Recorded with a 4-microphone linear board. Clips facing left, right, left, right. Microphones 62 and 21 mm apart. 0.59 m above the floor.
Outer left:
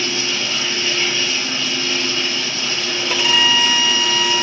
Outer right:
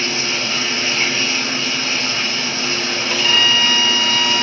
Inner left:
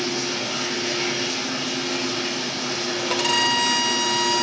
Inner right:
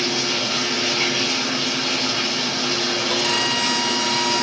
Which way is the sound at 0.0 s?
40° right (ahead or behind).